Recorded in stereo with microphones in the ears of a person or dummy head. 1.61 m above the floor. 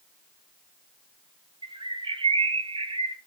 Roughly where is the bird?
Right.